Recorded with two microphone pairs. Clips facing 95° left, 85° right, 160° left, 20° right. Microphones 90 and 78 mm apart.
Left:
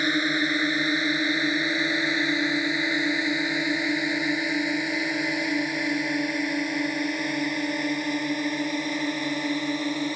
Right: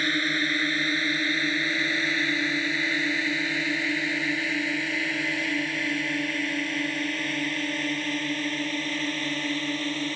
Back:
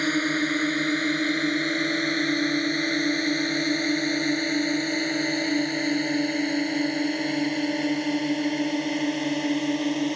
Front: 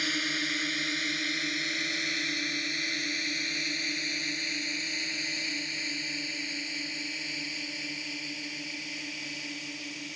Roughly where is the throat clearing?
I don't hear throat clearing.